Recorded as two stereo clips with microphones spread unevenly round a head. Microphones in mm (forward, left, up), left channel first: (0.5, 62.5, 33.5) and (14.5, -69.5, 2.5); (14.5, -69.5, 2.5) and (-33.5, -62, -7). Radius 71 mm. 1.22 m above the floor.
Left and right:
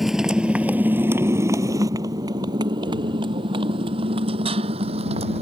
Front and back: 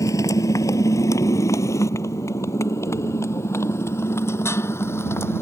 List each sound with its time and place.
0.0 s a motorcycle: 5° left; by 5.4 s 40° right